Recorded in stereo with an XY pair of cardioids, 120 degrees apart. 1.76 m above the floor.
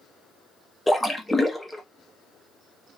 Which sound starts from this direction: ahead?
A splash, at 0.9 s.